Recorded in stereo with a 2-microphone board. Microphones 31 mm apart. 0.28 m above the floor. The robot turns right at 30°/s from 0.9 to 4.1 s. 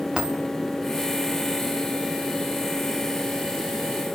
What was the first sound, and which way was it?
A dropped coin, 30° right (ahead or behind).